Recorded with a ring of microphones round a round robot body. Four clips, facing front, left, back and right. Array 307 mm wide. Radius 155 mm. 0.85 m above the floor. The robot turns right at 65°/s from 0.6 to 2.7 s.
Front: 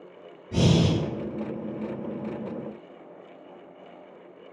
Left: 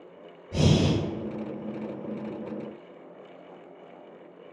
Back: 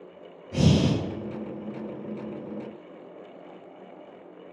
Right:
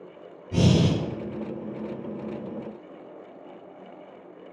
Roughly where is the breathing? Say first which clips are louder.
Right 2 dB, even; ahead right.